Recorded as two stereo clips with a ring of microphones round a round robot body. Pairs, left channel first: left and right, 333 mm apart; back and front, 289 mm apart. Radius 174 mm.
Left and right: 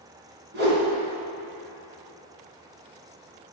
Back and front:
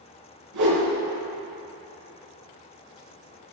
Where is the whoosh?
30° right, 3.5 m.